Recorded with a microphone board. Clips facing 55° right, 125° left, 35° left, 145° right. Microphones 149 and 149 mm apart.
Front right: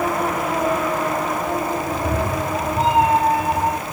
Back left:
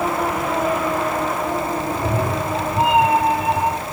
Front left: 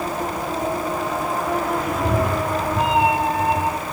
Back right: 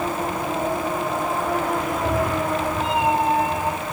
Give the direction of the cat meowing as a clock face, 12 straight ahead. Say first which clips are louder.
Back left 1 dB, front left 1 dB; 10 o'clock.